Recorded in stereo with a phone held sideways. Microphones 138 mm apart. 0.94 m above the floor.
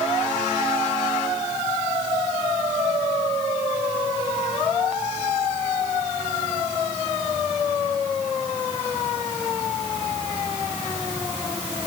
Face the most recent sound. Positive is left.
No sound to turn to.